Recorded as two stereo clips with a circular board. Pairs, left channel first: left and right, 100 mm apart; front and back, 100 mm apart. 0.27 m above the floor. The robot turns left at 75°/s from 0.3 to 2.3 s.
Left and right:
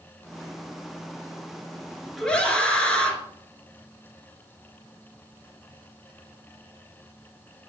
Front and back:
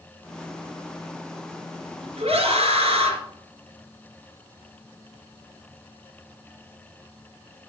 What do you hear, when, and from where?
2.2 s a scream: straight behind, 3.5 m; by 3.2 s 170° left, 3.5 m